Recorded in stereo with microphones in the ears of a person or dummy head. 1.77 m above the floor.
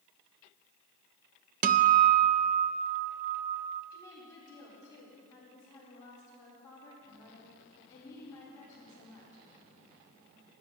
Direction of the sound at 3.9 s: 15° left (ahead or behind).